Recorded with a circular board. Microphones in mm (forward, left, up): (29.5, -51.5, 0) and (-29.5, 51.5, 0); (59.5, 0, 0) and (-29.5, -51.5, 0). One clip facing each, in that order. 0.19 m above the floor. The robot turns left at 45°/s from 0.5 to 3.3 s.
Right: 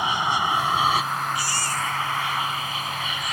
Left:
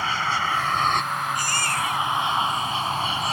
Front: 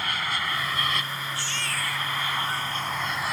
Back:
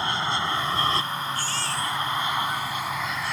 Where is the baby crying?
165° left; by 3.3 s 75° left.